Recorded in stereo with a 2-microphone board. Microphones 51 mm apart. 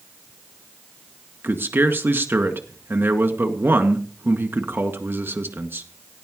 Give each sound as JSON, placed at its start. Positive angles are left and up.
{"t": 1.4, "sound": "a man speaking", "side_deg": -45, "distance_m": 1.9}